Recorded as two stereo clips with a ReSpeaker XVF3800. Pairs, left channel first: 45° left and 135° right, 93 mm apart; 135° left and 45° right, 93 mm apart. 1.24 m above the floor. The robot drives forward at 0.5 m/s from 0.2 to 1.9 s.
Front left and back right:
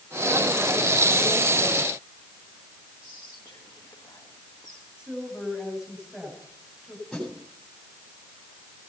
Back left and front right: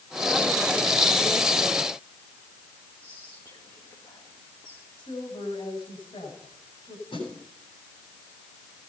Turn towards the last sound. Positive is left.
turn(degrees=130)